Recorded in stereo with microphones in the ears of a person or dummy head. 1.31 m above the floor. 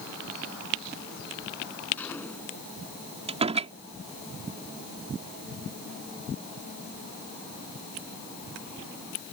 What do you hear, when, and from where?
2.0 s a gunshot: 15° left (ahead or behind)
3.3 s a door slam: 40° right (ahead or behind)